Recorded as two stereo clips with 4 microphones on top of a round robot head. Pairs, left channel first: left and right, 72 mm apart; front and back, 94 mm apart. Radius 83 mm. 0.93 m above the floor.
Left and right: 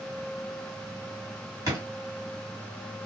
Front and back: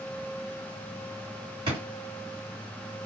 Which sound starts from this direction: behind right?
A drawer, at 1.7 s.